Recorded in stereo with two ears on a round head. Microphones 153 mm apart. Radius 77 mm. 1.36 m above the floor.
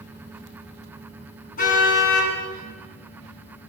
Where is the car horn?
50° left (ahead or behind), 7.5 m.